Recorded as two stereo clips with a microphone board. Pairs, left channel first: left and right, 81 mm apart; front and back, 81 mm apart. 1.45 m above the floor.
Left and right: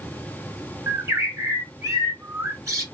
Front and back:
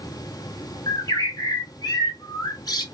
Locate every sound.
0.9 s a bird: 40° right, 2 m